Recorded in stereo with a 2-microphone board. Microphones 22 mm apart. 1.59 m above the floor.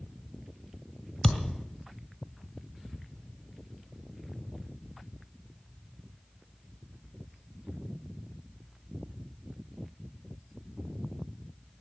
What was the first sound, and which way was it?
A thud, 20° left (ahead or behind).